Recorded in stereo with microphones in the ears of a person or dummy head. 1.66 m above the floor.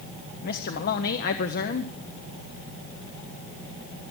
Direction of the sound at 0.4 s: 55° left (ahead or behind).